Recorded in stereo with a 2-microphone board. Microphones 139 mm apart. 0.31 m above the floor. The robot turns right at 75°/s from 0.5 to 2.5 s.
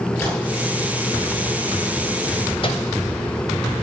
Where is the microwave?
40° left (ahead or behind), 1.2 m.